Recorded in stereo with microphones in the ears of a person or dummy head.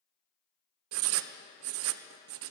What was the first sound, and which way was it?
Writing, 75° right (ahead or behind).